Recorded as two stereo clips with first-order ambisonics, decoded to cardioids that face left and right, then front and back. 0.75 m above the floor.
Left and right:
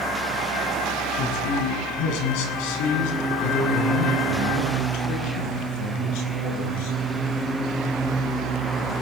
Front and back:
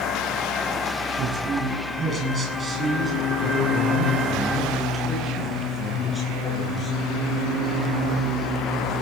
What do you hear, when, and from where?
1.2 s a man speaking: 125° left, 6.5 m; by 7.0 s 80° left, 13 m